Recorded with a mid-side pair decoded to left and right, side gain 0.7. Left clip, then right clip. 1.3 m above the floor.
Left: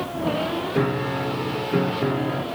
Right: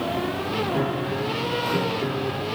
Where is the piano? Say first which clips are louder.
Left 2 dB; 20° left.